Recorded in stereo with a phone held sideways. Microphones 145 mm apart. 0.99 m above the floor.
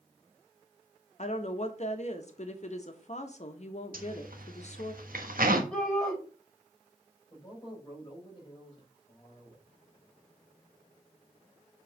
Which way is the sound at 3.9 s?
80° right.